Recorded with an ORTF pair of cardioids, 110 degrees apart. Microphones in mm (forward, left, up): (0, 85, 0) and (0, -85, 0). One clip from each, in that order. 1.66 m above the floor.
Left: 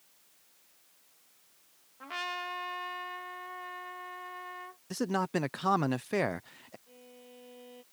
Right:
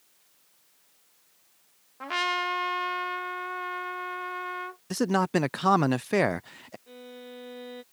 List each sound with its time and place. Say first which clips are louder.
2.0 s a trumpet: right 9 dB; 45° right
4.9 s a man speaking: right 6 dB; 25° right
6.9 s a violin: right 10 dB; 65° right